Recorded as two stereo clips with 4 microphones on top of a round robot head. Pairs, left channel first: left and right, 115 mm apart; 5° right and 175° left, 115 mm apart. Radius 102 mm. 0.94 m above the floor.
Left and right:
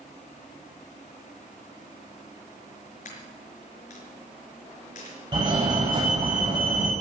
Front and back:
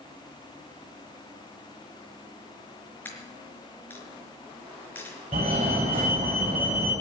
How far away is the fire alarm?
About 8.5 m.